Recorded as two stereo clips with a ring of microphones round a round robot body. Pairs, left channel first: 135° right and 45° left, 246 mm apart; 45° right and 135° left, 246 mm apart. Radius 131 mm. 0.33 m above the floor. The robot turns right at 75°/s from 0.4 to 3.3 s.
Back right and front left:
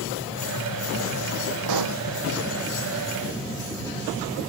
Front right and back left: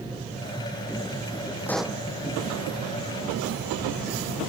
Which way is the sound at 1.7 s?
35° left.